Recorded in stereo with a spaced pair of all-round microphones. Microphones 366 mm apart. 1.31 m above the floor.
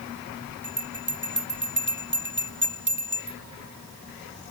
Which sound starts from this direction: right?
A bell, at 0.6 s.